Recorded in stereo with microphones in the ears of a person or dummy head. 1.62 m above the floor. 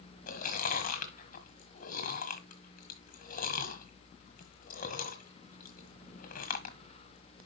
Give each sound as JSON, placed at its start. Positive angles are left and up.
{"t": 0.3, "sound": "chewing", "side_deg": 55, "distance_m": 1.5}